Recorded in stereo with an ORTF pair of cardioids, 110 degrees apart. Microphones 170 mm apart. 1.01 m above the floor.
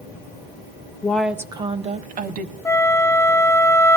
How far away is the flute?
About 0.6 m.